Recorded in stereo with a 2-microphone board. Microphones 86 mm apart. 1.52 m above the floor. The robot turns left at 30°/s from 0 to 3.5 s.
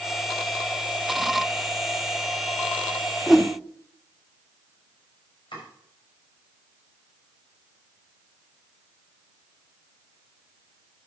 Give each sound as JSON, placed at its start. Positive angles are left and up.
{"t": 3.3, "sound": "a whoosh", "side_deg": 0, "distance_m": 0.7}
{"t": 5.5, "sound": "chopping", "side_deg": 60, "distance_m": 6.5}